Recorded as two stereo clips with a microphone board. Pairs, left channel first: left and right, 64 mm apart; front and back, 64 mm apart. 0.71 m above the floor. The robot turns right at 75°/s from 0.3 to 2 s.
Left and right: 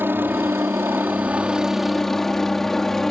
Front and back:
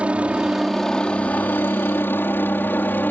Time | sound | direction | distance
0.0 | a helicopter | 120° right | ?